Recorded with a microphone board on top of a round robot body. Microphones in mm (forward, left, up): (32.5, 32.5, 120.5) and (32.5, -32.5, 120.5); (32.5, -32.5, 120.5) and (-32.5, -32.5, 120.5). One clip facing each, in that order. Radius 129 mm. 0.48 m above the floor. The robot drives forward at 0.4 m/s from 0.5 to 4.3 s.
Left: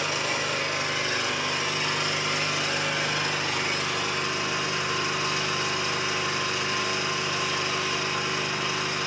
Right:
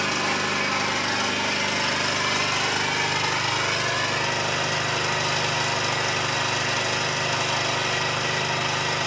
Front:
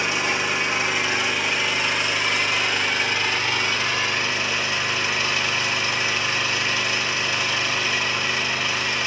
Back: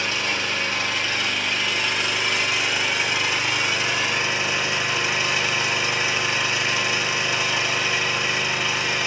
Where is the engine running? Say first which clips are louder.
Right 3 dB, front 2 dB; 75° right, 3 m; by 9.1 s 105° right, 3 m.